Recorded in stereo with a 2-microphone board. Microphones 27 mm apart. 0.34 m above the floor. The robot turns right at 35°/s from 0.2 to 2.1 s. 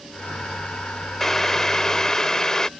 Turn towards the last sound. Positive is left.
turn(degrees=25)  # may be behind; listen again after turning